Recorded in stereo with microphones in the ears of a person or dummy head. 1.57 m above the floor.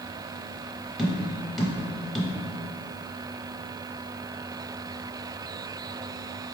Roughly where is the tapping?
Centre.